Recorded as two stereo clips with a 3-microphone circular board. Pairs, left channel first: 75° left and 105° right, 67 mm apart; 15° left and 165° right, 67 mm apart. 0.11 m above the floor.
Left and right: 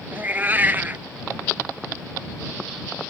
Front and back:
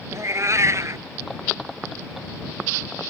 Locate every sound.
0.1 s a cat meowing: 155° right